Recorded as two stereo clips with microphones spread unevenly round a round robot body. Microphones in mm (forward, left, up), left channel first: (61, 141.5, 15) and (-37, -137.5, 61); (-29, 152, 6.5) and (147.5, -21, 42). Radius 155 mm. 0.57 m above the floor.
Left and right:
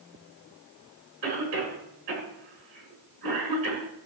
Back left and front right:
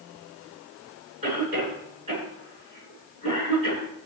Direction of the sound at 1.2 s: 115° right.